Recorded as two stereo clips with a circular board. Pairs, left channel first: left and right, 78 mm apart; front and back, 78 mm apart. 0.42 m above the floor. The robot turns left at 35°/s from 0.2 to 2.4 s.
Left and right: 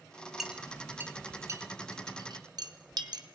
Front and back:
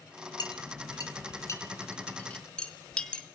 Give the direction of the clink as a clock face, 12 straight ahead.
12 o'clock.